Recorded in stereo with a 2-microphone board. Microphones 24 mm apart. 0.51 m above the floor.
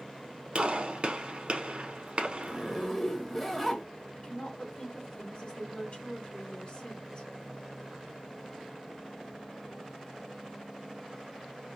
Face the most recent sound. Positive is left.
turn(degrees=45)  # may be behind; listen again after turning